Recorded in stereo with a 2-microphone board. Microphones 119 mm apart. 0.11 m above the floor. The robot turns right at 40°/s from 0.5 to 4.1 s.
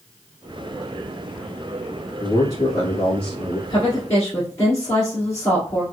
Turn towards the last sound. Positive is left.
turn(degrees=25)  # may be behind; listen again after turning